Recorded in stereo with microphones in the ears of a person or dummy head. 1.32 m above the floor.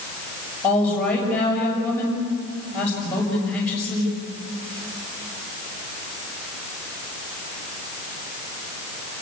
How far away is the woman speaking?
About 7 m.